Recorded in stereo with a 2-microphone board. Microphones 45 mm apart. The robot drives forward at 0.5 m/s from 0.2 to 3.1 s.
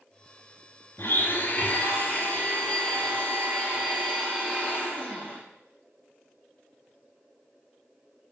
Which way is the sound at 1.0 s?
55° left (ahead or behind).